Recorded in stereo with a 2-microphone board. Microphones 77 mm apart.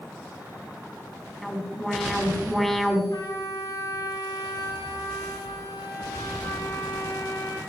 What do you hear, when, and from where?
1.4 s an alarm: centre (ahead or behind), 2.0 m
3.1 s a trumpet: 80° left, 4.5 m